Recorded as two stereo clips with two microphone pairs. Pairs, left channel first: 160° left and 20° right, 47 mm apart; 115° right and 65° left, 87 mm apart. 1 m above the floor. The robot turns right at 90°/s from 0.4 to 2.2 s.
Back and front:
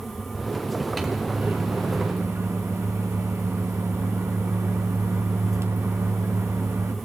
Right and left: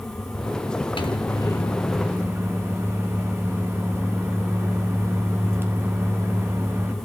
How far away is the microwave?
About 2.5 m.